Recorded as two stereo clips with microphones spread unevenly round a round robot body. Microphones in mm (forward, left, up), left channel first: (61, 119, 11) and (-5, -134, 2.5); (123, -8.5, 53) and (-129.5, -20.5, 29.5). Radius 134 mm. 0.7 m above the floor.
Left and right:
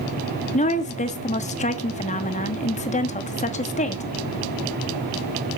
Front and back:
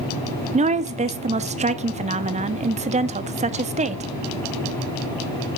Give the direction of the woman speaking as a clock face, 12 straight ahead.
8 o'clock.